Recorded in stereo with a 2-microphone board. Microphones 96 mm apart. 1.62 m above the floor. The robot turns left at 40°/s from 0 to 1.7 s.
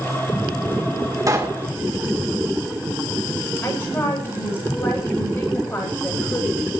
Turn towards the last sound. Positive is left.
turn(degrees=25)  # may be behind; listen again after turning